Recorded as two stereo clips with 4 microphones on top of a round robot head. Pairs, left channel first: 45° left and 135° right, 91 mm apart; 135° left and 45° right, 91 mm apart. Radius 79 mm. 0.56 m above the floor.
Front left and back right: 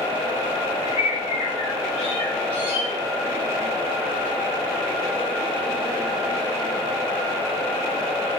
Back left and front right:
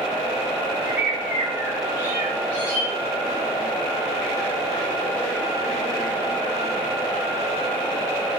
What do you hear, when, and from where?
0.8 s a bird: 30° left, 1.1 m